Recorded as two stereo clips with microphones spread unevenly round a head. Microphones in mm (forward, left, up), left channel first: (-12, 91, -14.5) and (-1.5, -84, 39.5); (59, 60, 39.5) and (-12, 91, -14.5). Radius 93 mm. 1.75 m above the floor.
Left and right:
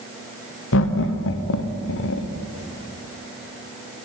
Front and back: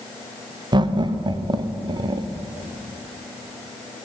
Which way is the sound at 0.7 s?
115° left.